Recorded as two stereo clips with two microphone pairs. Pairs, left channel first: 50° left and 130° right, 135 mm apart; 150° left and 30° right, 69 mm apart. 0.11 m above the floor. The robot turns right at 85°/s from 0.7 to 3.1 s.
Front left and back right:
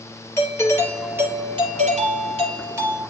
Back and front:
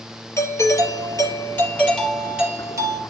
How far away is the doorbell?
About 3.5 m.